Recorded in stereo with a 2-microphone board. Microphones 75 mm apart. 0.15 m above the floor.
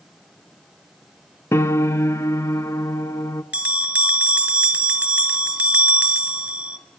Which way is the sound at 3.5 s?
15° right (ahead or behind).